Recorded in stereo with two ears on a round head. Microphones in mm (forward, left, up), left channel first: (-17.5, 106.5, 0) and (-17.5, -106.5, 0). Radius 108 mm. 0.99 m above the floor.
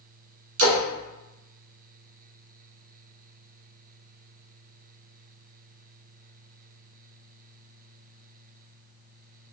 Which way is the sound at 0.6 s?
65° right (ahead or behind).